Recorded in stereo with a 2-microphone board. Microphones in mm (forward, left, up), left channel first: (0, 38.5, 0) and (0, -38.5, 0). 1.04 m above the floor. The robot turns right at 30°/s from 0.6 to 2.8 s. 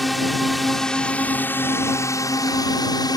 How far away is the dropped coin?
I don't hear a dropped coin.